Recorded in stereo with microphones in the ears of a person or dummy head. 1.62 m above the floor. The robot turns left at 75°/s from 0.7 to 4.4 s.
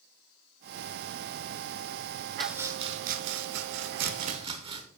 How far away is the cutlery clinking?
No cutlery clinking in this recording.